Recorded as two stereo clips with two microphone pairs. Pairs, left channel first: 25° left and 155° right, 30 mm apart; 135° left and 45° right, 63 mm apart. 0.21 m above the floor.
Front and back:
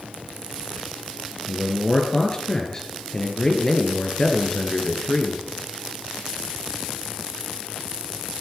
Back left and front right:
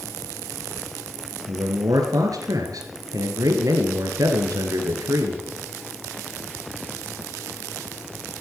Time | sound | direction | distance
1.5 | a man speaking | 45° right | 3.5 m